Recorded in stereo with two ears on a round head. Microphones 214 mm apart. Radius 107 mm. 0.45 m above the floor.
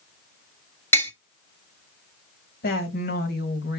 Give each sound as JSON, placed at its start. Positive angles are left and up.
{"t": 0.9, "sound": "tapping", "side_deg": 10, "distance_m": 1.6}
{"t": 2.6, "sound": "a woman speaking", "side_deg": 45, "distance_m": 2.5}